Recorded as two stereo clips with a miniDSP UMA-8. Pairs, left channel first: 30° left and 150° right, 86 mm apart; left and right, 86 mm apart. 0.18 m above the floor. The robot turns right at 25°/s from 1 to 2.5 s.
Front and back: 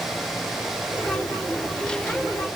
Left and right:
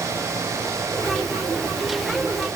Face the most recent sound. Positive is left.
No sound to turn to.